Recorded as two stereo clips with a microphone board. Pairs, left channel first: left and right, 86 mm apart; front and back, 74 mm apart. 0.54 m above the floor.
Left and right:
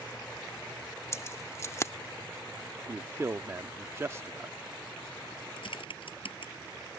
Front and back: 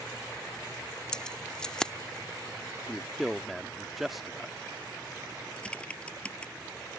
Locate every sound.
1.1 s keys jangling: 75° left
2.9 s a man speaking: 90° right
5.6 s typing on a keyboard: 75° left